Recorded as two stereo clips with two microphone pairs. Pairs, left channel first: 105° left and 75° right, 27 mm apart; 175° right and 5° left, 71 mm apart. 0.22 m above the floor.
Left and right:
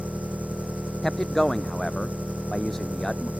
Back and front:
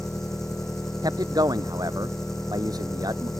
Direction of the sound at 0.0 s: 90° right.